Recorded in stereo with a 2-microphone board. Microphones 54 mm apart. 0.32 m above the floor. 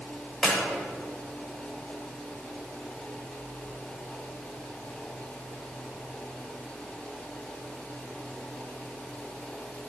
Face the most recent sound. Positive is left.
turn(degrees=10)  # may be behind; listen again after turning